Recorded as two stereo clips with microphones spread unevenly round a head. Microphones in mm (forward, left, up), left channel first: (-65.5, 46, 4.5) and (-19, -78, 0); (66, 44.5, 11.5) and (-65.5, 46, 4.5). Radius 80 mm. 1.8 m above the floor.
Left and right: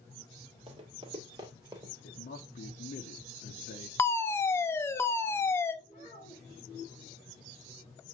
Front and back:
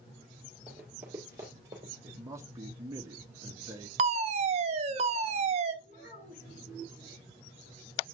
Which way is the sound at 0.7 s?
95° right.